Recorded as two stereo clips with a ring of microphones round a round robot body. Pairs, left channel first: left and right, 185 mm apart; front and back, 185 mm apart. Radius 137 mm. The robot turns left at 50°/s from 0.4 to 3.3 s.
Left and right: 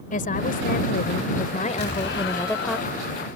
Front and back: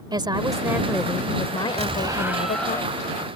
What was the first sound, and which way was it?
A woman speaking, 120° left.